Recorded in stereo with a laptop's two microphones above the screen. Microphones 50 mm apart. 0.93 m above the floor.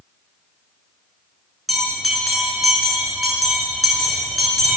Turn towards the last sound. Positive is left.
turn(degrees=0)  # may be behind; listen again after turning